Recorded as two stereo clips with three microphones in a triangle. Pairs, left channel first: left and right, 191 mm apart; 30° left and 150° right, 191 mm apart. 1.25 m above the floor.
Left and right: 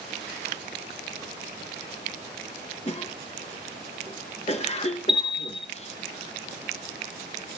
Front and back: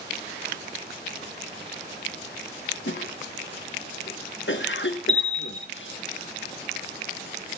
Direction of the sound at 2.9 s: 35° left.